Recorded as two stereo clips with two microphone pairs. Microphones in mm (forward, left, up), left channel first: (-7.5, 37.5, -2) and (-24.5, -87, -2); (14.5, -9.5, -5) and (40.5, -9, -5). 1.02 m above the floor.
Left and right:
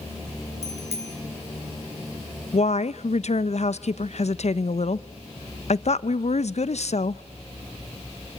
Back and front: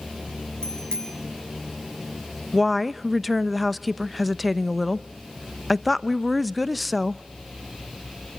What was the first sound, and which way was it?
A bicycle bell, 125° right.